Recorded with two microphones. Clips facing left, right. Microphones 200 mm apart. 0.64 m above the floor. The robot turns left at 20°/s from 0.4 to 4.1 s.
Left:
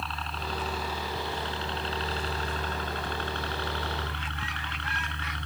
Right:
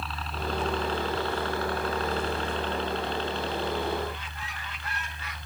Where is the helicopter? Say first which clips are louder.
Right 3 dB; centre (ahead or behind); by 5.5 s 70° left (ahead or behind).